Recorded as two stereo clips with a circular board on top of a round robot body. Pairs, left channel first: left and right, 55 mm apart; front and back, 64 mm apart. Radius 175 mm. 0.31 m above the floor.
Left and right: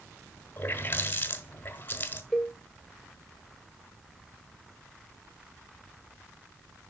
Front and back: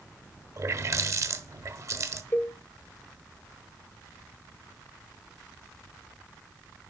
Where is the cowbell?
5° left, 1.7 m.